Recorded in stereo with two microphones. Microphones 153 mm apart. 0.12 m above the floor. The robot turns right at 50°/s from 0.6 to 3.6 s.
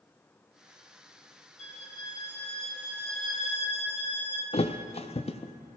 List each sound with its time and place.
1.6 s a violin: 125° left, 3.5 m; by 4.4 s 135° right, 3.5 m
4.5 s a thud: 40° left (ahead or behind), 0.8 m